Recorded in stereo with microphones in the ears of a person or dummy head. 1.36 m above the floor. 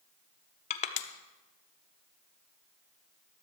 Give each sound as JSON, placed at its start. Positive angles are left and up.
{"t": 0.7, "sound": "crushing", "side_deg": 40, "distance_m": 0.6}